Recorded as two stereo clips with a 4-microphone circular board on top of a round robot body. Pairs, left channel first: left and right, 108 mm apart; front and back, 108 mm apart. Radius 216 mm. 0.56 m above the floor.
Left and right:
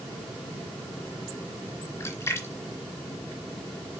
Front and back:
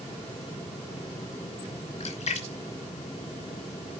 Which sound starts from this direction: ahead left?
A splash, at 2.0 s.